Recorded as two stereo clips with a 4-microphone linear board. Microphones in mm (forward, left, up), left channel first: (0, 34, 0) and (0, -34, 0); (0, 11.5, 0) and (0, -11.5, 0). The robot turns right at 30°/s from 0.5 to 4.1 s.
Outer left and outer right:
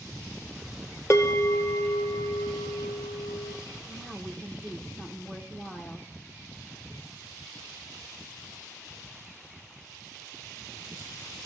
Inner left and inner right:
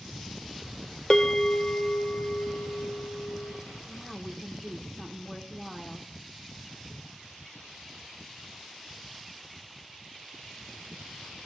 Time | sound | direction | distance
1.1 | a bell | 50° left | 0.7 m
3.9 | a woman speaking | 10° left (ahead or behind) | 0.8 m